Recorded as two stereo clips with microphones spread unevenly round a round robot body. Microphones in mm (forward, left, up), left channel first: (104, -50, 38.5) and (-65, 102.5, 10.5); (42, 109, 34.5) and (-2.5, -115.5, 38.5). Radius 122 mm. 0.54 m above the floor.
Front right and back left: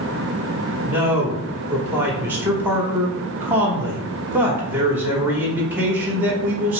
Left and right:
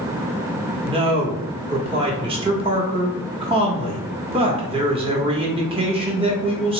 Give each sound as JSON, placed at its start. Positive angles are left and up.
{"t": 0.8, "sound": "a man speaking", "azimuth_deg": -155, "distance_m": 1.1}